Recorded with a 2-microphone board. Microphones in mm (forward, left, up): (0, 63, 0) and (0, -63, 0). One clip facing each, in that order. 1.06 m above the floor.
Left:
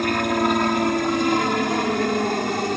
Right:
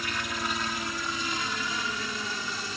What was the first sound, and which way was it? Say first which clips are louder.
A helicopter: left 14 dB; 60° left (ahead or behind).